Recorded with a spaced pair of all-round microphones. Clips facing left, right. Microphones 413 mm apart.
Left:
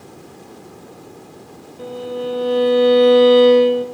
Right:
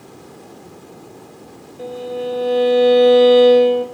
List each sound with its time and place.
1.8 s a violin: 15° left (ahead or behind), 2.5 m